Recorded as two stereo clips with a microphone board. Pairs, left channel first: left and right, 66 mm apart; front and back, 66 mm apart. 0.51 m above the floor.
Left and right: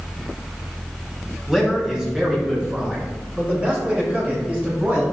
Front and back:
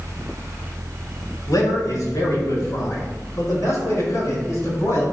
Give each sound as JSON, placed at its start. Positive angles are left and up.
{"t": 1.5, "sound": "a man speaking", "azimuth_deg": -5, "distance_m": 3.5}